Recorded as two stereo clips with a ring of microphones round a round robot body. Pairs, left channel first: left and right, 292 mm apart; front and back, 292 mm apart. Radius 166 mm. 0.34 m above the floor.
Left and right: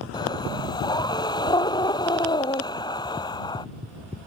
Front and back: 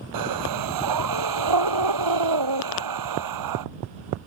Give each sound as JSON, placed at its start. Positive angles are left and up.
{"t": 0.1, "sound": "breathing", "azimuth_deg": 170}